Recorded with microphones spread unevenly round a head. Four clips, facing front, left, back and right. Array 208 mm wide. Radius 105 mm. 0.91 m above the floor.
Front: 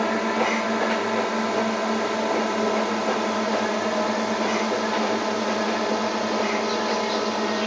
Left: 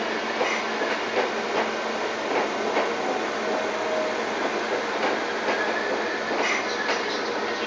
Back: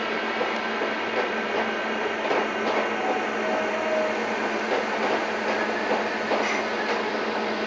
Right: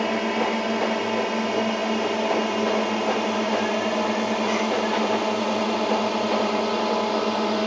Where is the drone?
45° right; by 7.7 s 65° right.